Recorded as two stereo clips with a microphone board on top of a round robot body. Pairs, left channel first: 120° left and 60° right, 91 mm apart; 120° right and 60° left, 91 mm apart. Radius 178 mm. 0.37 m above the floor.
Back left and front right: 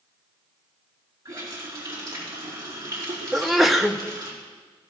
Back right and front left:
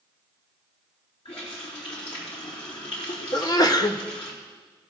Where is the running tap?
115° right, 4.5 m.